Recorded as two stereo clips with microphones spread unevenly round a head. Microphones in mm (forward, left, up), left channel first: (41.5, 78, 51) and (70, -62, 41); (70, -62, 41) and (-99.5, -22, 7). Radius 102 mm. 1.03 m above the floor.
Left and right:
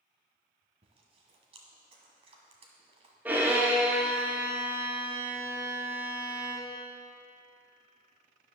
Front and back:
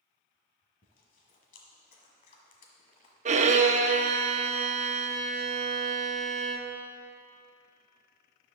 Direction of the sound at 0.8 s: 35° right.